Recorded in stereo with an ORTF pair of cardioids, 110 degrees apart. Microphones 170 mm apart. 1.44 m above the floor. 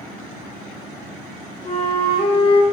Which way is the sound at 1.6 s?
35° left.